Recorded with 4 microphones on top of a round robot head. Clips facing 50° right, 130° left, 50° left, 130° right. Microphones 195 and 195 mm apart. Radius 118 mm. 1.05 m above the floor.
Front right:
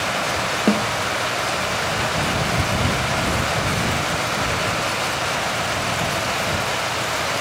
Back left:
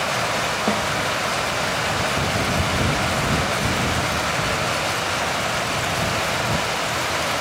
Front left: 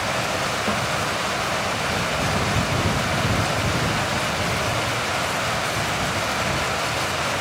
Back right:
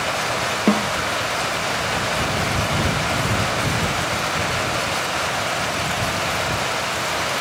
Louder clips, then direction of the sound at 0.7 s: Front right 6 dB, back right 11 dB; 105° right.